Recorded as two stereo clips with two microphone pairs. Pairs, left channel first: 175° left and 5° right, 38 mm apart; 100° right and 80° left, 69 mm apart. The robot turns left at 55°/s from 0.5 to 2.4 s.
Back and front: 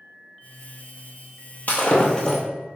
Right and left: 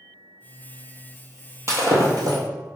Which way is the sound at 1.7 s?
130° left.